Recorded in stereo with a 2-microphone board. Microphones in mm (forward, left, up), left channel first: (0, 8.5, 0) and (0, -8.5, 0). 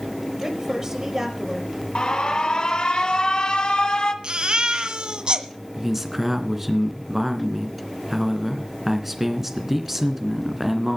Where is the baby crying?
55° right (ahead or behind), 1.6 m.